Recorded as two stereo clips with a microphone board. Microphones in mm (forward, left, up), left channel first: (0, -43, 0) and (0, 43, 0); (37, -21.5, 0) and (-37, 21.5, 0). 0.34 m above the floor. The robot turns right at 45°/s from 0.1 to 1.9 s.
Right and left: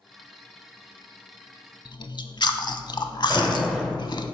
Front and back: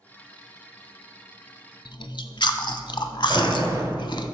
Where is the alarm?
170° right, 1.4 m.